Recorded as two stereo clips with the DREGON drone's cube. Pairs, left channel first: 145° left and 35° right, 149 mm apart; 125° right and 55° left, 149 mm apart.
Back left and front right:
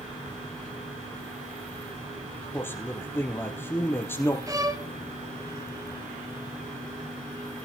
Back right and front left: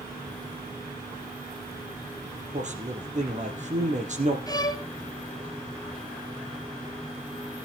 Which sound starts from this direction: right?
A violin, at 4.5 s.